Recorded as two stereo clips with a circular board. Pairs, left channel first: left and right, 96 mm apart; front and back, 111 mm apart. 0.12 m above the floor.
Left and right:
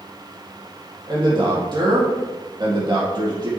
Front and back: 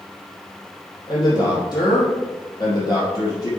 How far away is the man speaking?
About 4 m.